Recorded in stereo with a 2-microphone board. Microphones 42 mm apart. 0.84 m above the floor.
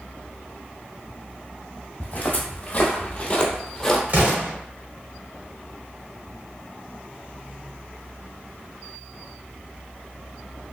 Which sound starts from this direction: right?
An explosion, at 4.1 s.